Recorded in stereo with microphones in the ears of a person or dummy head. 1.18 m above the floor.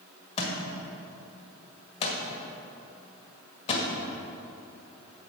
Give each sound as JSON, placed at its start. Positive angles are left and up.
{"t": 0.4, "sound": "a thud", "side_deg": 35, "distance_m": 1.8}